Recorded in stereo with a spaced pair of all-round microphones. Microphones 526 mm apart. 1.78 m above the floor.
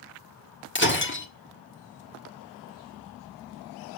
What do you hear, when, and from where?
0.8 s breaking glass: 25° left (ahead or behind), 1.5 m